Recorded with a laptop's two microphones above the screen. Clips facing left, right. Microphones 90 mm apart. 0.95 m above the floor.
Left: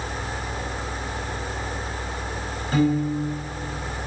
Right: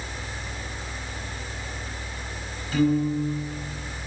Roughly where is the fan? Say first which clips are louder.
Left 6 dB; left.